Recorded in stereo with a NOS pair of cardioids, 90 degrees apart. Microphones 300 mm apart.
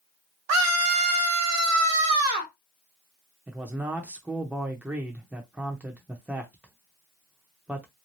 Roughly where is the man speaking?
Ahead.